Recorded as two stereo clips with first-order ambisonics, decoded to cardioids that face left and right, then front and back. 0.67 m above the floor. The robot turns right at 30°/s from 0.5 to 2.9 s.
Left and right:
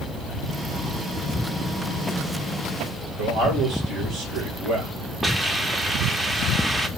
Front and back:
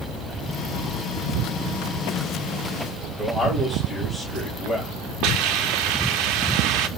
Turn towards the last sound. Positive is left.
turn(degrees=-170)